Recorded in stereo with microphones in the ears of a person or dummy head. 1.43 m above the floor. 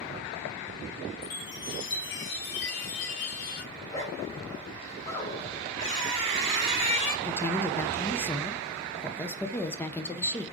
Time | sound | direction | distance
1.2 | a chime | 55° left (ahead or behind) | 1.5 m
3.7 | a zipper | 15° left (ahead or behind) | 4 m
5.8 | a squeak | 30° left (ahead or behind) | 4 m
7.2 | a woman speaking | 10° left (ahead or behind) | 0.7 m